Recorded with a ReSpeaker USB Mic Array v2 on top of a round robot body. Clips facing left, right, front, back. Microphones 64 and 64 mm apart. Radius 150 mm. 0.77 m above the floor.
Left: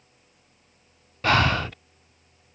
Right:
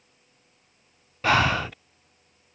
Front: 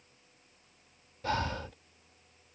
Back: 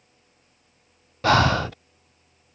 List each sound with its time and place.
1.2 s breathing: 175° right